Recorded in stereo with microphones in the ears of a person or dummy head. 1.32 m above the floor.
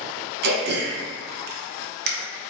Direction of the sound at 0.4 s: 50° right (ahead or behind).